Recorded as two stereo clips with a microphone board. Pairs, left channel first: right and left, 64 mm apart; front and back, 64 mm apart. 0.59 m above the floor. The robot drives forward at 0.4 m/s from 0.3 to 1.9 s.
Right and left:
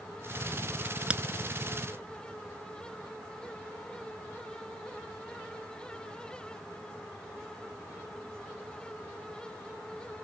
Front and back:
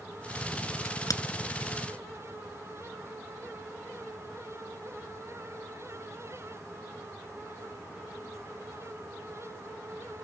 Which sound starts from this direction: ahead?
A crack, at 0.8 s.